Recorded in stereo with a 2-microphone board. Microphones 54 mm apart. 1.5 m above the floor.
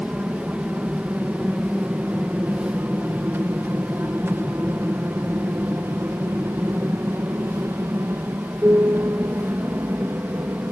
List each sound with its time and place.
0.0 s an aircraft: 25° right (ahead or behind); by 10.7 s 55° right (ahead or behind)